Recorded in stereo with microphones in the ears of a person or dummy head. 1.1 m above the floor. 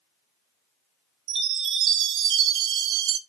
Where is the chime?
65° right (ahead or behind), 0.8 m.